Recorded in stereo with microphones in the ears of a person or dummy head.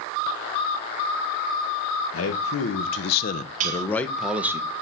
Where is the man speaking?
75° left (ahead or behind), 1.1 m; by 4.6 s 15° right (ahead or behind), 1.0 m.